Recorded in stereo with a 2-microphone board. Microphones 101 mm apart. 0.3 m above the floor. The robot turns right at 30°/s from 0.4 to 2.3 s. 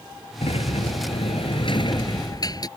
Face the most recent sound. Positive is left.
turn(degrees=140)